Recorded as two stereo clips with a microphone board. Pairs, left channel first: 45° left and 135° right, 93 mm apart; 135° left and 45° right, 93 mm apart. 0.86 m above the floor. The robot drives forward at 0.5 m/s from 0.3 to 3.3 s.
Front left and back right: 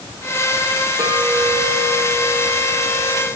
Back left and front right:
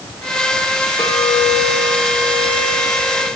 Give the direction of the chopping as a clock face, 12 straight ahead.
No chopping in this recording.